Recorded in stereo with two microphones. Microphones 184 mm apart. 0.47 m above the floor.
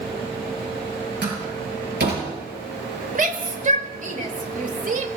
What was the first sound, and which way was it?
A door slam, 65° right (ahead or behind).